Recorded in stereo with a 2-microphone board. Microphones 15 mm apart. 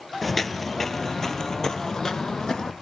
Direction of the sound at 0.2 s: 5° left (ahead or behind).